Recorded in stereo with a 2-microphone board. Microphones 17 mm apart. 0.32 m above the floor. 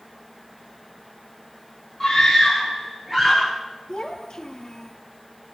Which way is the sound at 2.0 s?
20° left (ahead or behind).